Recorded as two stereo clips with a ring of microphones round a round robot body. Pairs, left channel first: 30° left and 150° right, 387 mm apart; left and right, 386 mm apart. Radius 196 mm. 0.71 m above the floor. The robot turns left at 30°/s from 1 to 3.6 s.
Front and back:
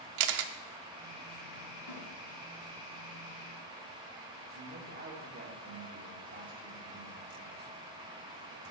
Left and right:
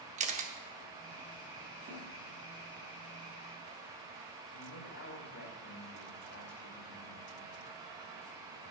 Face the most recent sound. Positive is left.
turn(degrees=140)